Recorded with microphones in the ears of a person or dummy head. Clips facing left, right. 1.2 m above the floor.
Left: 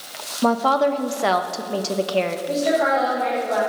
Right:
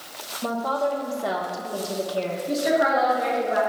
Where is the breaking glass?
I don't hear breaking glass.